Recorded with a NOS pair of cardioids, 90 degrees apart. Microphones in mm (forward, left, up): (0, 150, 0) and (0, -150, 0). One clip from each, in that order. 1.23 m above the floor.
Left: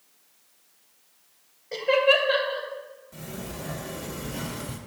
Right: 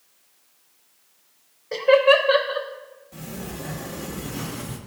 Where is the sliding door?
15° right, 1.6 m.